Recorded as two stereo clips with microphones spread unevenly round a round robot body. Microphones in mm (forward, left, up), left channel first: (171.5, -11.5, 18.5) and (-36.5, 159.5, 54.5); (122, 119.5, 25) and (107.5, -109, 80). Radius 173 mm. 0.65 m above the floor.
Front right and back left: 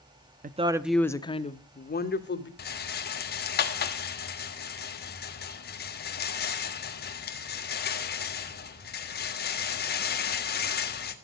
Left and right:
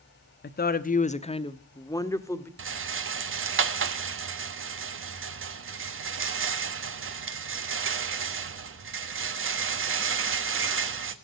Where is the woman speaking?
80° left, 0.8 m; by 2.5 s 10° left, 1.8 m.